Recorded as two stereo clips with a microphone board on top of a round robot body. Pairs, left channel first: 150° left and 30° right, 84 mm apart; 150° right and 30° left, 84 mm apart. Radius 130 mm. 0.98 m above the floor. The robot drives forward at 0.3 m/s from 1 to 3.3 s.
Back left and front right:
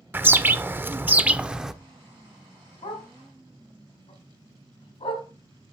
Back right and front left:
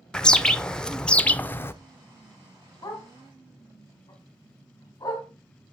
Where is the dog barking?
155° left, 2.5 m.